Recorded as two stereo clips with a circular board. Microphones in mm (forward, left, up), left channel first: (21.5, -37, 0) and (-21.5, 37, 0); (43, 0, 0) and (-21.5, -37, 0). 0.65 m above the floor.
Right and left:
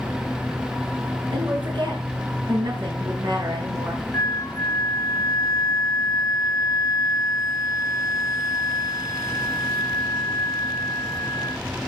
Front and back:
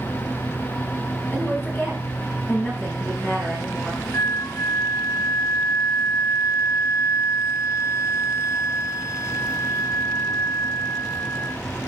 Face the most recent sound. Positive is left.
turn(degrees=-15)